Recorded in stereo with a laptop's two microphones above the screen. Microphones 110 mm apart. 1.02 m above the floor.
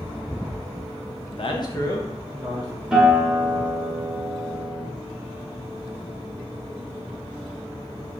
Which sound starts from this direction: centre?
A guitar, at 2.9 s.